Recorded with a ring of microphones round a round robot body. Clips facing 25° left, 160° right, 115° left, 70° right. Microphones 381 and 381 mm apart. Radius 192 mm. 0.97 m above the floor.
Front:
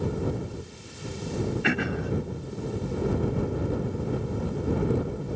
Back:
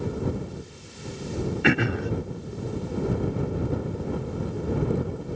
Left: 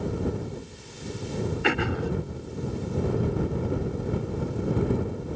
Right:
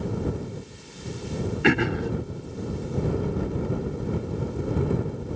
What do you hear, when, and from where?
1.6 s throat clearing: 130° right